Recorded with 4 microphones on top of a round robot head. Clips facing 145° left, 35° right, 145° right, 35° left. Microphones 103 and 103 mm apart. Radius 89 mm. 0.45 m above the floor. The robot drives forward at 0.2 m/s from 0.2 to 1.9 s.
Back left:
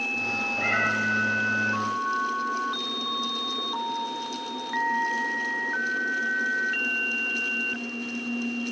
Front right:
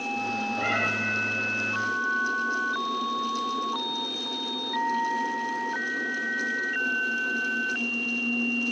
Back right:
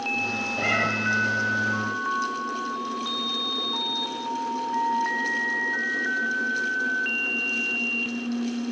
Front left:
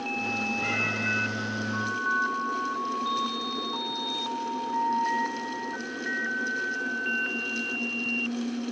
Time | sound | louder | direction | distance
0.6 | a cat meowing | back left 4 dB, back right 5 dB | 115° right | 1.1 m